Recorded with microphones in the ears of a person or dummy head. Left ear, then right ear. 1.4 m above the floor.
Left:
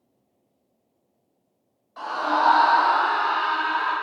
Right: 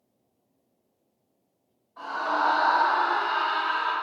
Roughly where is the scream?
Left.